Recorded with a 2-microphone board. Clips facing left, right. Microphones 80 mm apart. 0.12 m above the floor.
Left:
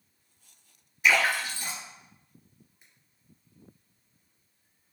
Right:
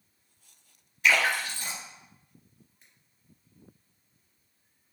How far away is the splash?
About 1.9 m.